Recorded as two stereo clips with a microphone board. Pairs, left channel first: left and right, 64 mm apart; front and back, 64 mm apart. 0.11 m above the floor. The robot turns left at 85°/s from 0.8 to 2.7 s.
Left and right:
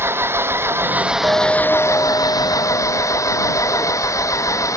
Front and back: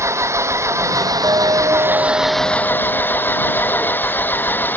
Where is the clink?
145° right; by 4.4 s 90° left.